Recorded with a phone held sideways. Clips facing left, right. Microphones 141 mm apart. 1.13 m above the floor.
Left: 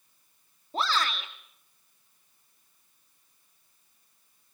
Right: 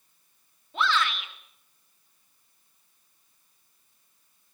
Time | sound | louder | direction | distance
0.7 | a shout | right 2 dB | 35° left (ahead or behind) | 2.5 m